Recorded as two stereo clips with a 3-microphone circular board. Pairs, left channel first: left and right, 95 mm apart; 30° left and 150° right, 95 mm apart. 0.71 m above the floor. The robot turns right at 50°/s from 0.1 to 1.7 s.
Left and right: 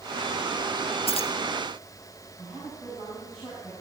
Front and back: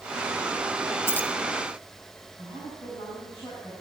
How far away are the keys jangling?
About 0.8 m.